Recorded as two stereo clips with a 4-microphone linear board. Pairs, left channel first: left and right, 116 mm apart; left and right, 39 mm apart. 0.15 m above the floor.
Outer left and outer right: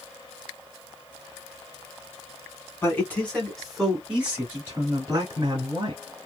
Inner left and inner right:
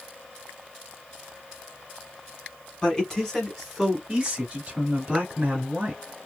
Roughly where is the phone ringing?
No phone ringing in this recording.